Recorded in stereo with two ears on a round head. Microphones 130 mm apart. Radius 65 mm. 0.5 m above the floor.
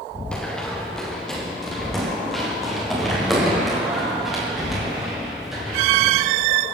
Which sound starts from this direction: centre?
Running footsteps, at 0.3 s.